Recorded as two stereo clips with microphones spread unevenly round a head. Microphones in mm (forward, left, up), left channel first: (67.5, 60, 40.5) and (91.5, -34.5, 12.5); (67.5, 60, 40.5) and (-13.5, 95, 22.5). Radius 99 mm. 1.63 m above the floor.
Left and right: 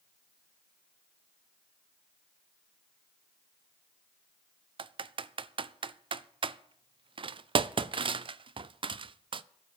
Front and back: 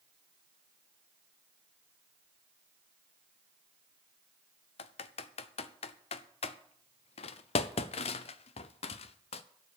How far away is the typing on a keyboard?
About 0.5 m.